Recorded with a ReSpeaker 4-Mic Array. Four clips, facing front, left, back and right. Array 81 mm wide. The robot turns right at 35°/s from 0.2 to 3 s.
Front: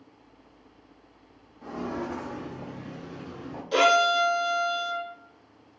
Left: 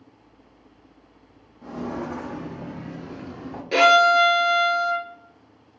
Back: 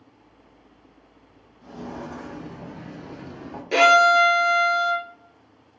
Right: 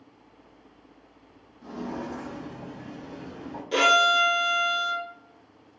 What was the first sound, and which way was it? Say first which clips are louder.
Footsteps: left 4 dB, front 3 dB; 35° left.